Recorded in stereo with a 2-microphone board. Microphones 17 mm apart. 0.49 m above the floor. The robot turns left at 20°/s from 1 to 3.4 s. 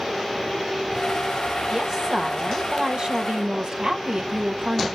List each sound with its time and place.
1.7 s a woman speaking: 35° right, 1.8 m; by 4.9 s 65° right, 1.8 m